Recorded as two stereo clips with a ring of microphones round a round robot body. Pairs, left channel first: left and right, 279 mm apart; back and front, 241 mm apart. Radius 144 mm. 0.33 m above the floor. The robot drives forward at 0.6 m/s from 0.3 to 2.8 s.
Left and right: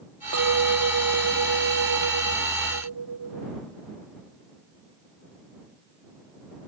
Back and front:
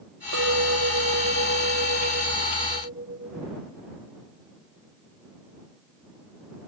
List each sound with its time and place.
0.3 s a clink: 50° right; by 3.5 s 60° right